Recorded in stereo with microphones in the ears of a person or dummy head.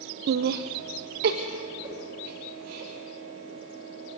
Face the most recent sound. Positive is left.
turn(degrees=-25)  # may be behind; listen again after turning